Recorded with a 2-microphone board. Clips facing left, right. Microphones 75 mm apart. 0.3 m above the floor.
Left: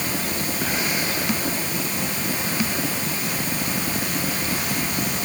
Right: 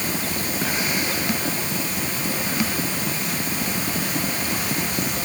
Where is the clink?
I don't hear a clink.